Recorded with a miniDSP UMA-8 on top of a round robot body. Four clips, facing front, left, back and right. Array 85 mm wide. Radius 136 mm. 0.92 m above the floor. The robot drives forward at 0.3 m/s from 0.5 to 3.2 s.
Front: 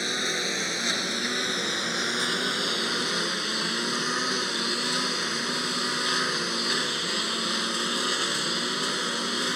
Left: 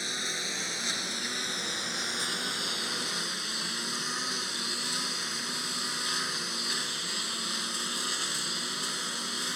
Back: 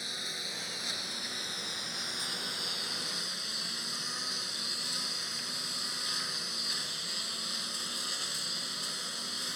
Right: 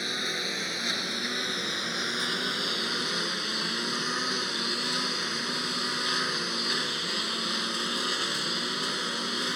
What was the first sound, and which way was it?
A lawn mower, 15° right.